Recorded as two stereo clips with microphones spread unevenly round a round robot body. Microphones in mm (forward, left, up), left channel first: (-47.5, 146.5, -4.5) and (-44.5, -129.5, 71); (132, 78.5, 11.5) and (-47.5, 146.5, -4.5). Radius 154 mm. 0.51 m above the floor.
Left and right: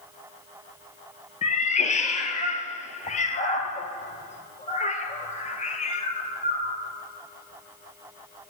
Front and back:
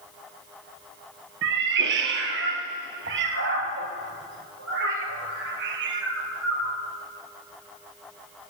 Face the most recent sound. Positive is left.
turn(degrees=160)